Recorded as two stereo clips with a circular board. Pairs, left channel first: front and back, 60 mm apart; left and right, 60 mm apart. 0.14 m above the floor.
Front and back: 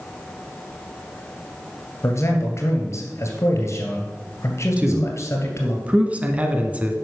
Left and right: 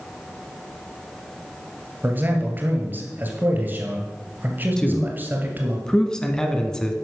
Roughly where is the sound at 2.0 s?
Ahead right.